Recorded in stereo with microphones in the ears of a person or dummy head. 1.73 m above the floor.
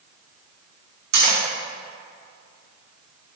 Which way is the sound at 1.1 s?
60° right (ahead or behind).